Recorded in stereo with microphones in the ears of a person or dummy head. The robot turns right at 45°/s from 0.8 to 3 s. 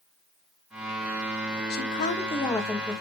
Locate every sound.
1.7 s a woman speaking: 125° left, 1.6 m; by 3.0 s 175° right, 1.6 m